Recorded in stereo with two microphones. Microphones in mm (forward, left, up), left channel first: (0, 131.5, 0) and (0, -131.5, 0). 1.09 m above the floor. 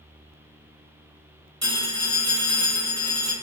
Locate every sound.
1.6 s a phone ringing: 75° right (ahead or behind), 1.7 m